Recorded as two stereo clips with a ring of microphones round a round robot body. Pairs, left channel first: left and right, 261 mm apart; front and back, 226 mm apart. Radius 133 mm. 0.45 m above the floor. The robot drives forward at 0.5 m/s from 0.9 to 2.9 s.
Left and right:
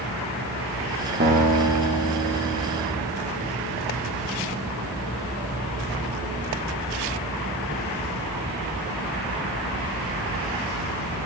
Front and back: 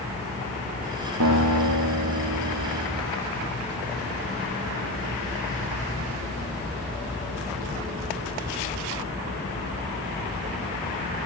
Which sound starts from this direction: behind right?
A guitar, at 1.2 s.